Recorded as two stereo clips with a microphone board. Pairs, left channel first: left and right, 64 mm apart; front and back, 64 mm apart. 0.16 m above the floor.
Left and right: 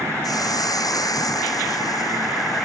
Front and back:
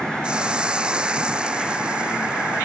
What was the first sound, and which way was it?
A hiss, 105° left.